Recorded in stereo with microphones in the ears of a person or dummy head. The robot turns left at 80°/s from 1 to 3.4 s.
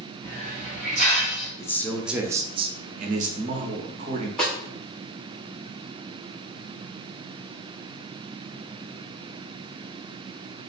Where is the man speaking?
35° left, 0.6 m; by 4.3 s 115° right, 0.6 m.